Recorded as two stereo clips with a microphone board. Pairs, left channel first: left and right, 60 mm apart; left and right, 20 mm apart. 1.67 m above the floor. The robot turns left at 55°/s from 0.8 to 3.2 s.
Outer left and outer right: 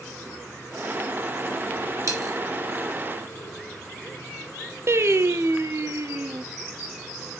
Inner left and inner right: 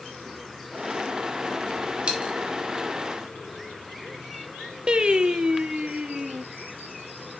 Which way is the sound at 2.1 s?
65° right (ahead or behind).